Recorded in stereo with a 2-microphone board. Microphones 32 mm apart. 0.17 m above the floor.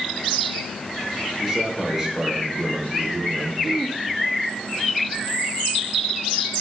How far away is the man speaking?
About 3 m.